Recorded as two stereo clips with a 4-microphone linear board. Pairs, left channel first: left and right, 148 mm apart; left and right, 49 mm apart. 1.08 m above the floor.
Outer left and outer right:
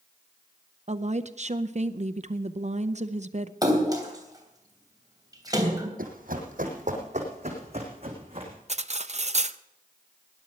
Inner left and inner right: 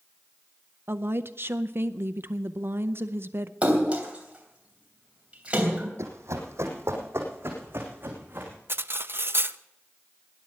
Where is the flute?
I don't hear a flute.